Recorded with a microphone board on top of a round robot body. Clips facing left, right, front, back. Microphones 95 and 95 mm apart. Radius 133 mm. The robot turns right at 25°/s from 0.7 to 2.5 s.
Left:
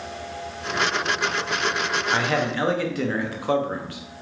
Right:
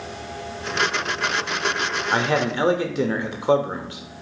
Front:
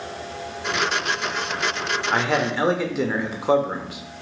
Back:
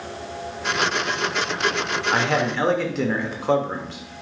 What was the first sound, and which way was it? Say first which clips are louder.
A man speaking: right 3 dB, even; 85° right.